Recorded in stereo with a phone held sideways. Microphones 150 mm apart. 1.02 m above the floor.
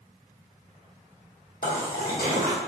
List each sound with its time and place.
1.6 s a splash: 85° left, 1.6 m